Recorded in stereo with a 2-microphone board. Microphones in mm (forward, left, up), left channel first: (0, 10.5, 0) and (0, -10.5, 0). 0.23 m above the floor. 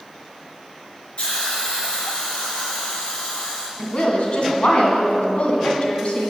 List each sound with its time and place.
1.2 s a hiss: 50° left (ahead or behind), 3 m
3.8 s a woman speaking: 50° left (ahead or behind), 2 m